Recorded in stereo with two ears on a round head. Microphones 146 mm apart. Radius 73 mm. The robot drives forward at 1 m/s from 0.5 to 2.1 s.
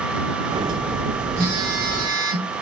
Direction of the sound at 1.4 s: 70° right (ahead or behind).